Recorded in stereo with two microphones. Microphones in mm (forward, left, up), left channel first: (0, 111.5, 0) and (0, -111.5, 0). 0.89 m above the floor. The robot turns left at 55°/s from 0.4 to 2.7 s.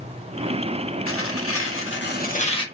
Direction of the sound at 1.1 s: 110° left.